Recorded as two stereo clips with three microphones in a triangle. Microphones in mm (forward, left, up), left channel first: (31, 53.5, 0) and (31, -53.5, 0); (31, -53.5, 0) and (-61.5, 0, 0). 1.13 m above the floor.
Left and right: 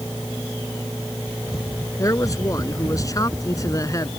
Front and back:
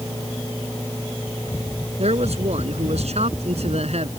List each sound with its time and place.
2.0 s a man speaking: 150° left